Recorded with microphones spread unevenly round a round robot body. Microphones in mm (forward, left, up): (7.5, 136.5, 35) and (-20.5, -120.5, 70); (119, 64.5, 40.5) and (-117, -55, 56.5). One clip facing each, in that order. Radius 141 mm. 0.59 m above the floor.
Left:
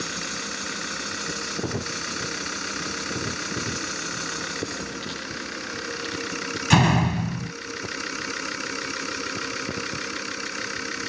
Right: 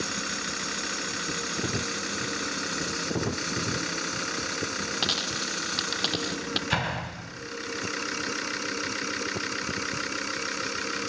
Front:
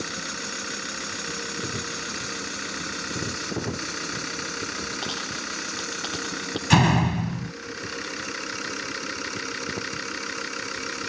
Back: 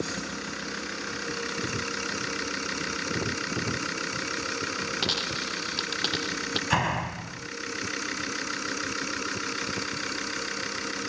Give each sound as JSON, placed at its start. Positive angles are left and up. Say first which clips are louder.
{"t": 5.0, "sound": "a dropped coin", "louder": "even, back 1 dB", "azimuth_deg": -95}
{"t": 6.7, "sound": "a door slam", "louder": "left 13 dB, front 11 dB", "azimuth_deg": 60}